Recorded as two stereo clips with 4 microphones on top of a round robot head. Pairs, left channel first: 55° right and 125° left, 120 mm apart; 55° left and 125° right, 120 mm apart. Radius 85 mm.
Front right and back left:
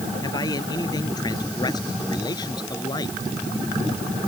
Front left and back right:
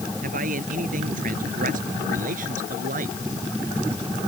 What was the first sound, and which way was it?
A man speaking, 115° right.